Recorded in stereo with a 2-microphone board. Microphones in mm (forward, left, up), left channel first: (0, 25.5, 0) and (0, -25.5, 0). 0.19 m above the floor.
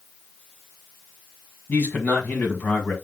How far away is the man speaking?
About 1.5 m.